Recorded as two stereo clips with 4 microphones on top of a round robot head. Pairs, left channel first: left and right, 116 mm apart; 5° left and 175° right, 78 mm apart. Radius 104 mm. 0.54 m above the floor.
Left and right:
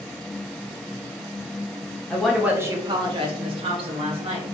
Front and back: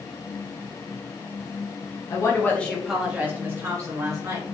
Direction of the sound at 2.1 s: 10° left.